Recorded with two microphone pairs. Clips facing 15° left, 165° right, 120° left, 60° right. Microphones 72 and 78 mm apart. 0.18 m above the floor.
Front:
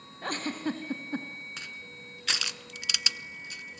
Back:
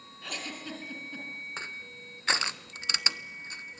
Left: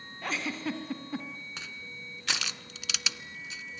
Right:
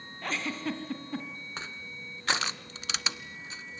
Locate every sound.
0.2 s a giggle: 30° left, 2.5 m
1.6 s crushing: 110° right, 0.8 m